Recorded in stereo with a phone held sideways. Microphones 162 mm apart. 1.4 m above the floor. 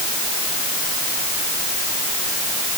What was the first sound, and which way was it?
Only background noise.